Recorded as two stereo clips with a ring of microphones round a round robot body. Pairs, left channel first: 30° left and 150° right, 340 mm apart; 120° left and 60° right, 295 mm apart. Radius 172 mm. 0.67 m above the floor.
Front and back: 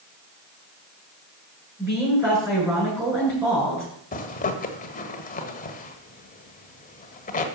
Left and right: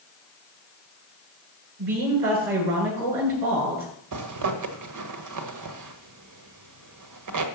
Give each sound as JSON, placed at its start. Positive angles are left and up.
{"t": 1.8, "sound": "a woman speaking", "azimuth_deg": -65, "distance_m": 9.0}
{"t": 4.1, "sound": "a zipper", "azimuth_deg": -40, "distance_m": 1.5}